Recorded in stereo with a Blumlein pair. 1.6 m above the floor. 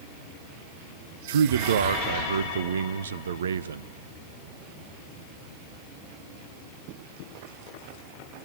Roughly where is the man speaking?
Ahead right.